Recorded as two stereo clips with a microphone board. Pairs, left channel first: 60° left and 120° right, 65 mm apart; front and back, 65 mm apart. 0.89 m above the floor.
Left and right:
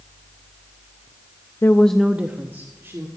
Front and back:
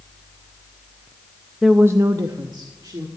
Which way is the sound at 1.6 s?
90° left.